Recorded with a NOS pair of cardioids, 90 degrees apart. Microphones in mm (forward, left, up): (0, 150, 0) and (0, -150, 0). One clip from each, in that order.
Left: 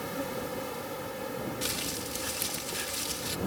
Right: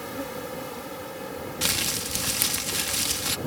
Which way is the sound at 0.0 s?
5° right.